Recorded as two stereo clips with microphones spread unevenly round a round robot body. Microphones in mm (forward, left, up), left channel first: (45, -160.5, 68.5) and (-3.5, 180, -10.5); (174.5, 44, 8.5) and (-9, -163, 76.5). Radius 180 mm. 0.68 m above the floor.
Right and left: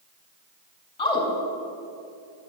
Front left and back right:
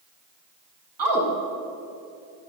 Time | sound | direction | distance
1.0 | a woman speaking | 160° right | 3.5 m